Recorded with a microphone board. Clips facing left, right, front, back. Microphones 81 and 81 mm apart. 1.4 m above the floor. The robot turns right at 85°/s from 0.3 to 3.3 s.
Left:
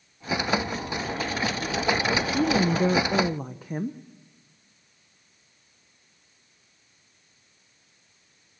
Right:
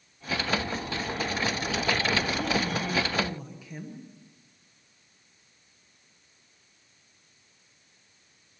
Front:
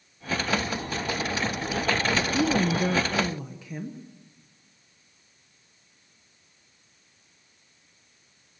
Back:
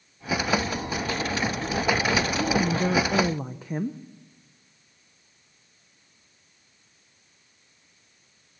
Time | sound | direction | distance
2.3 | a woman speaking | 50° left | 0.9 m